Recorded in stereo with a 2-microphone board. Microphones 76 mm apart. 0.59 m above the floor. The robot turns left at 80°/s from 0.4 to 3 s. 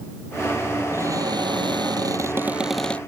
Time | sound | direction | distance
0.9 | a cupboard door | 35° right | ?